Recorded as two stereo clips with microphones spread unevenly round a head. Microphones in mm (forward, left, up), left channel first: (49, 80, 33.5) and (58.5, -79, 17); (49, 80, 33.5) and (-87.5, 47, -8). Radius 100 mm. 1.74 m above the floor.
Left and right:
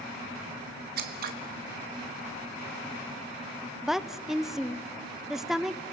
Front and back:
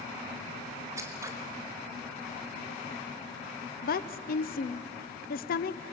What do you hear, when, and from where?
1.0 s scissors: 80° right, 1.2 m
3.8 s a woman speaking: 5° left, 0.8 m